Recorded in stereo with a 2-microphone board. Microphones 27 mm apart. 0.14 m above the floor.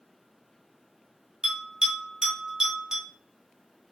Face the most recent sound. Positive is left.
turn(degrees=-15)  # may be behind; listen again after turning